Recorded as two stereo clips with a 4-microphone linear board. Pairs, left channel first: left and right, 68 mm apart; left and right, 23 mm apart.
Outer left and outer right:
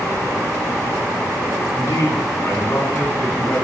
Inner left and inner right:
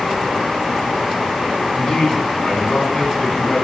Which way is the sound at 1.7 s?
45° left (ahead or behind).